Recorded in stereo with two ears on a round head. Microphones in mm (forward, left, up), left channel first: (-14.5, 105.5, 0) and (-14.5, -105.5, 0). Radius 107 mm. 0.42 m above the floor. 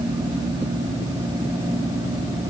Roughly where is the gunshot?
I don't hear a gunshot.